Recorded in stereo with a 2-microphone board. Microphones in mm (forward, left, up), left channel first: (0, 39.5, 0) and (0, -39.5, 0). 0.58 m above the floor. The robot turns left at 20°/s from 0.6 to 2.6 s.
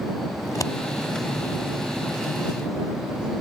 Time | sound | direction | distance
0.5 | scissors | 45° left (ahead or behind) | ?